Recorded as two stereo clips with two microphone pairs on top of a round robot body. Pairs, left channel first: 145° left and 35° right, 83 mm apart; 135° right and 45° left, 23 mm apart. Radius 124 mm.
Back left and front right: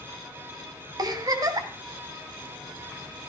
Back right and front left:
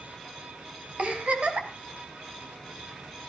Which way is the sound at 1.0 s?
5° left.